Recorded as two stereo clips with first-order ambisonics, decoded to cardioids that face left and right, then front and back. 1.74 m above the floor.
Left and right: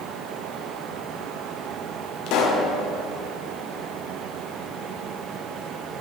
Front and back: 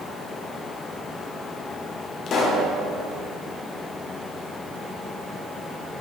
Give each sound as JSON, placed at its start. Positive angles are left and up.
{"t": 2.3, "sound": "a pop", "azimuth_deg": 60, "distance_m": 0.9}